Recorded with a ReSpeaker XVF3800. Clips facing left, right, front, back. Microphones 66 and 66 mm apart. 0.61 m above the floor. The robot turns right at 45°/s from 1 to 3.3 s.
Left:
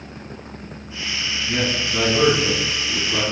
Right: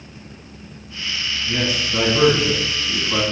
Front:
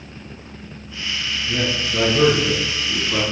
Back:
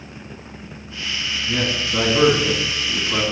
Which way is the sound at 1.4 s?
Straight behind.